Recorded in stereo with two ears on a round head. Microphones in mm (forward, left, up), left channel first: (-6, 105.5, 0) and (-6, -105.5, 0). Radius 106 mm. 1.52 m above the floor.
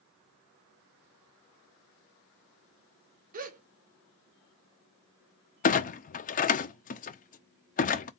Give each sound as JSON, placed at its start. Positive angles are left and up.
{"t": 3.3, "sound": "a gasp", "side_deg": -35, "distance_m": 1.0}
{"t": 5.6, "sound": "a clunk", "side_deg": 35, "distance_m": 0.6}